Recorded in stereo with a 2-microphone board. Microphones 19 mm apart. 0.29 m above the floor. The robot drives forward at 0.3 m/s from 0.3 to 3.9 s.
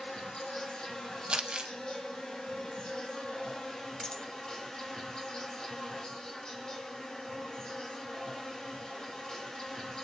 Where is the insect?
50° left (ahead or behind), 1.2 m.